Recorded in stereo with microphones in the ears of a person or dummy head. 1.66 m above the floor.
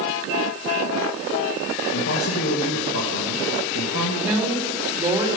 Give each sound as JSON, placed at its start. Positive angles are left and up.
{"t": 1.9, "sound": "a man speaking", "side_deg": 75, "distance_m": 2.5}
{"t": 4.2, "sound": "a woman speaking", "side_deg": -15, "distance_m": 5.0}